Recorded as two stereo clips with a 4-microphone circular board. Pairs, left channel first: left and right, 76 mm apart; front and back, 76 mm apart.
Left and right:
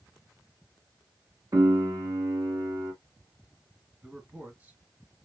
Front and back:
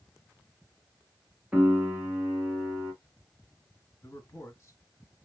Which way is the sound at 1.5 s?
110° right.